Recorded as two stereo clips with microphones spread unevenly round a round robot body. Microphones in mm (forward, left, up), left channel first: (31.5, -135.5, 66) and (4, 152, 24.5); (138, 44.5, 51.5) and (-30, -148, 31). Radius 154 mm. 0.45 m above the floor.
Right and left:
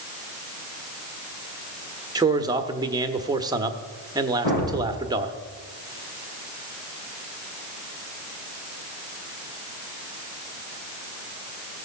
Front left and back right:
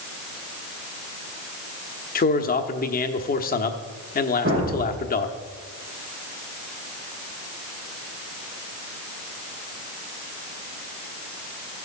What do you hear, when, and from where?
2.1 s a man speaking: 55° left, 1.0 m
4.5 s a thud: 75° right, 7.5 m